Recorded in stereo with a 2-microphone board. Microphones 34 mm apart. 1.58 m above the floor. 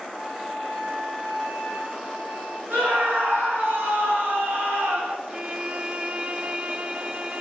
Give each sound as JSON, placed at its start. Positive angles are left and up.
{"t": 0.1, "sound": "a flute", "side_deg": -70, "distance_m": 4.5}
{"t": 2.7, "sound": "a scream", "side_deg": -80, "distance_m": 6.5}
{"t": 5.3, "sound": "a violin", "side_deg": -40, "distance_m": 0.7}